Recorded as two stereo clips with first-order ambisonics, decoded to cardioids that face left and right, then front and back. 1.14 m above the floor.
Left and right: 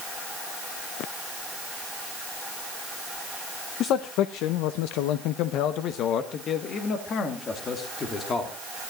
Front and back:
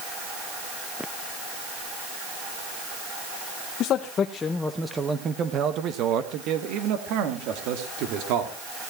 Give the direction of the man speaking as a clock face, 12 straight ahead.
10 o'clock.